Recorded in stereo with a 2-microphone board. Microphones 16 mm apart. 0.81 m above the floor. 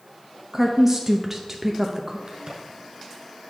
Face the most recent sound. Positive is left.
turn(degrees=-65)  # may be behind; listen again after turning